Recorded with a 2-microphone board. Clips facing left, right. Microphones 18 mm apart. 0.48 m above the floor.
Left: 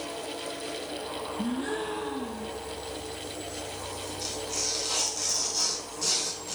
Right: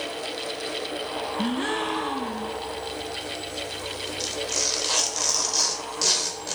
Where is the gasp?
70° right (ahead or behind), 1.0 m.